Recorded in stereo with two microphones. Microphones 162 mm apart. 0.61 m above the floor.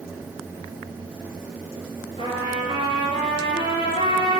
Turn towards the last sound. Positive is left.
turn(degrees=35)  # may be behind; listen again after turning